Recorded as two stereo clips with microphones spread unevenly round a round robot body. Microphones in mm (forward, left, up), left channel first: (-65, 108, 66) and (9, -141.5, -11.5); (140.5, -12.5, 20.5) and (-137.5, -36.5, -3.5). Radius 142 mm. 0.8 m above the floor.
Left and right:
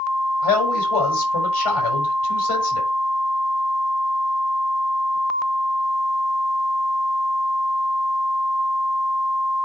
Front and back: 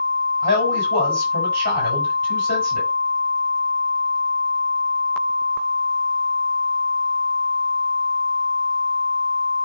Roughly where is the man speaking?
Behind left.